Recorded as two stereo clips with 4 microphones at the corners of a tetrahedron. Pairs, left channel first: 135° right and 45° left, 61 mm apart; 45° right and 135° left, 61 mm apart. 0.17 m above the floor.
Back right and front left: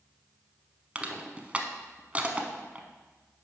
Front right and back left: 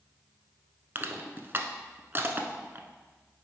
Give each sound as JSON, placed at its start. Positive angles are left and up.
{"t": 0.9, "sound": "crushing", "azimuth_deg": 105, "distance_m": 0.7}